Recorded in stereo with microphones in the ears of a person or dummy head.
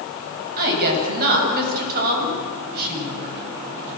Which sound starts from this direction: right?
A woman speaking, at 0.6 s.